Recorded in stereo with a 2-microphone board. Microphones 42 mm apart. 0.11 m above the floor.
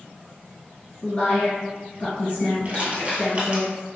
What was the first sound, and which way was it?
A woman speaking, 30° left (ahead or behind).